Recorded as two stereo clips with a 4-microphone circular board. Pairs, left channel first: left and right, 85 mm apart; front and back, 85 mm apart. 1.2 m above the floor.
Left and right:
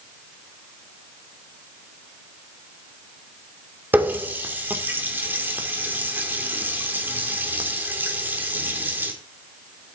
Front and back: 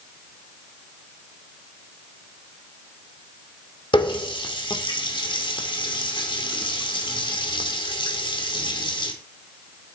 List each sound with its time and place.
3.9 s a running tap: 20° right, 2 m